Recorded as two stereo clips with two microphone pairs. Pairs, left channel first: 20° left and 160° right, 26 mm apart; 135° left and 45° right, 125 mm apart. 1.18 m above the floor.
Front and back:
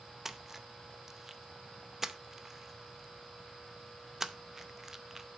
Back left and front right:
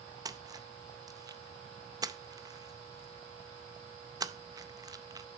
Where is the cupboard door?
I don't hear a cupboard door.